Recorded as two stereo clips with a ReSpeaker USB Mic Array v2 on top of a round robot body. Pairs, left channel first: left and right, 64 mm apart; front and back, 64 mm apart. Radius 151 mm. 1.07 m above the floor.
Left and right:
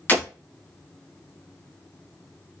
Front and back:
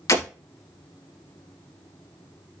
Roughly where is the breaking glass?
Ahead left.